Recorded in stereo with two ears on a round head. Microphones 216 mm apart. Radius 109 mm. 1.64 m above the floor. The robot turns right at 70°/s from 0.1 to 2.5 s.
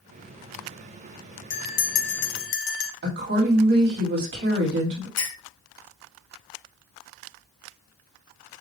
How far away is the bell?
About 0.6 m.